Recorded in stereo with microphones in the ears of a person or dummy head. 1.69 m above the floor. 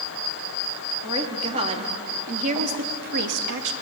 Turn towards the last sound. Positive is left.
turn(degrees=-75)  # may be behind; listen again after turning